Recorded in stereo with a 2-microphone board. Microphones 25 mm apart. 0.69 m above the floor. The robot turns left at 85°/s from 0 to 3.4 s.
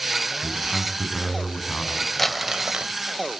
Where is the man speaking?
150° right, 6.5 m; by 2.1 s 70° left, 6.5 m.